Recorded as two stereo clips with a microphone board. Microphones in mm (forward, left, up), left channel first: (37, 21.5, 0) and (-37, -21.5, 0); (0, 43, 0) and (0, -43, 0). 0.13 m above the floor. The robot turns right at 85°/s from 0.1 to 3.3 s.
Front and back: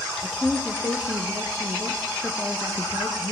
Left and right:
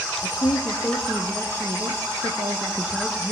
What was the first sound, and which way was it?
A woman speaking, 115° left.